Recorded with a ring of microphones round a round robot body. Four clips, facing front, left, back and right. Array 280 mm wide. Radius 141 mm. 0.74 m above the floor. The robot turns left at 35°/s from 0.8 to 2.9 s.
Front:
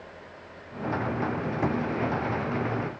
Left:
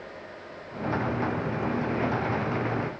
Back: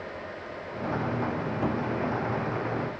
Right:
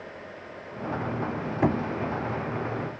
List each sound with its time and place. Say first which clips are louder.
1.6 s knocking: right 7 dB, front 2 dB; 80° right; by 1.9 s 90° right